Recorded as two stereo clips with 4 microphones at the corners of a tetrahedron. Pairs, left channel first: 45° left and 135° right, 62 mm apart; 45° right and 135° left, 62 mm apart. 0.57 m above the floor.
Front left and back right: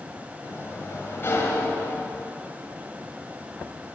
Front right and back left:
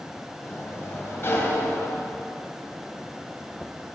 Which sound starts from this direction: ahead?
A sliding door, at 0.4 s.